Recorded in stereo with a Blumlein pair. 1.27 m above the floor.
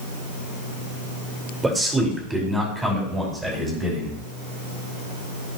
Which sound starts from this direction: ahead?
A man speaking, at 1.6 s.